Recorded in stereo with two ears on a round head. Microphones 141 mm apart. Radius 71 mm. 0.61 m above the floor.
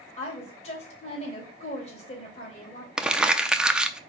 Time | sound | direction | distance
0.2 | a woman speaking | 40° left (ahead or behind) | 3.5 m
3.0 | crumpling | 5° right (ahead or behind) | 0.6 m